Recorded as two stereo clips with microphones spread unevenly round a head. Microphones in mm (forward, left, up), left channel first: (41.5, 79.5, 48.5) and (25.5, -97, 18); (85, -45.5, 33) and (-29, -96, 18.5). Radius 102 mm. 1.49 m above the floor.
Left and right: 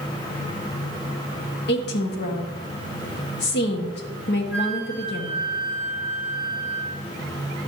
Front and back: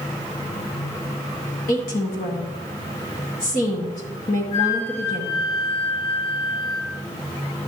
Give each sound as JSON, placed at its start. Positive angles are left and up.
{"t": 1.7, "sound": "a woman speaking", "azimuth_deg": 60, "distance_m": 1.3}
{"t": 4.5, "sound": "a flute", "azimuth_deg": 0, "distance_m": 4.0}